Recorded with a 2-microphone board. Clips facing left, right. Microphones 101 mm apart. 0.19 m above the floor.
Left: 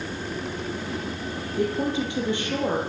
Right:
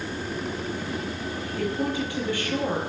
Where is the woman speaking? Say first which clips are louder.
Left 3 dB; 20° left (ahead or behind), 6 m.